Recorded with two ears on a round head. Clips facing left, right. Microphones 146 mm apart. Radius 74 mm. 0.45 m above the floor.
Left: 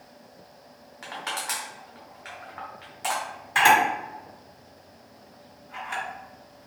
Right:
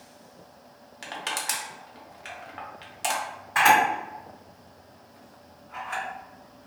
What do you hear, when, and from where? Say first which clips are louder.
1.0 s crushing: even; 30° right (ahead or behind), 0.7 m
3.5 s a camera shutter: even; 35° left (ahead or behind), 1.6 m